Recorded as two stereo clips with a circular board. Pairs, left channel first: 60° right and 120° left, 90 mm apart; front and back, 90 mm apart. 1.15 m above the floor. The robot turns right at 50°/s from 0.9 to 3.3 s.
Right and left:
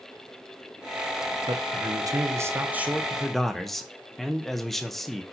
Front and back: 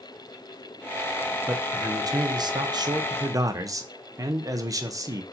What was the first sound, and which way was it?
A man speaking, 125° left.